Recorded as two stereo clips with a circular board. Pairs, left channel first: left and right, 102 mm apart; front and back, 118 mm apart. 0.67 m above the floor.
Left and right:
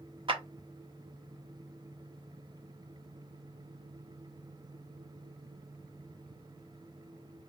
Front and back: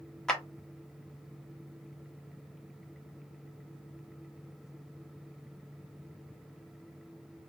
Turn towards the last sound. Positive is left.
turn(degrees=-85)